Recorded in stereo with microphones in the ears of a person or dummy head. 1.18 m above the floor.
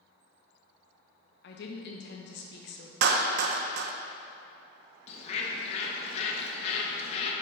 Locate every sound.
1.4 s a woman speaking: 55° left (ahead or behind), 1.0 m
3.0 s a clap: 60° right (ahead or behind), 0.6 m
5.1 s a bird: 40° left (ahead or behind), 1.1 m